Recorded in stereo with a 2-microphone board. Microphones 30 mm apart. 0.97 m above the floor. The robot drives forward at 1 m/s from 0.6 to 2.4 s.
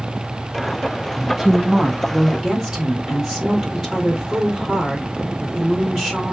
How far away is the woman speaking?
About 0.6 m.